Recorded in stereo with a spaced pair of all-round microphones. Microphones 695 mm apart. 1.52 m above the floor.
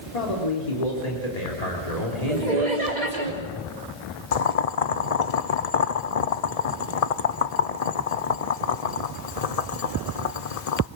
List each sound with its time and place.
0.1 s a man speaking: 65° left (ahead or behind), 3.5 m
2.3 s laughter: 75° right (ahead or behind), 2.5 m
4.3 s boiling: 60° left (ahead or behind), 0.7 m